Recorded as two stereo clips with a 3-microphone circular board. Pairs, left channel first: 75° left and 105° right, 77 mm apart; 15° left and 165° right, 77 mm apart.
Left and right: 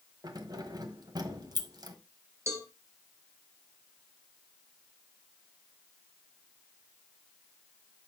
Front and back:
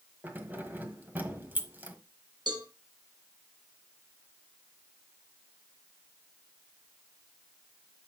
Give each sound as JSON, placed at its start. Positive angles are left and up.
{"t": 0.2, "sound": "keys jangling", "azimuth_deg": -105, "distance_m": 1.3}
{"t": 2.5, "sound": "a cowbell", "azimuth_deg": -155, "distance_m": 1.8}